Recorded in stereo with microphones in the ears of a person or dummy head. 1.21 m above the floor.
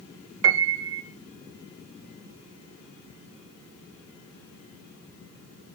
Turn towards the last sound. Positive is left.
turn(degrees=-60)  # may be behind; listen again after turning